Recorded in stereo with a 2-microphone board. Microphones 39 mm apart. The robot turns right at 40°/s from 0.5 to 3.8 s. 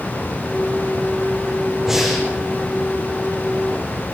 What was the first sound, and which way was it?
Breathing, 10° right (ahead or behind).